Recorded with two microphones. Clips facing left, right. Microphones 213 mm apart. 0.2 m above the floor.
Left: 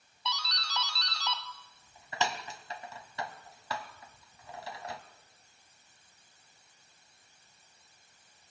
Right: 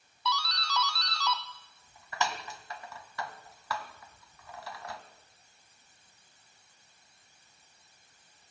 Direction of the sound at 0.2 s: 20° left (ahead or behind).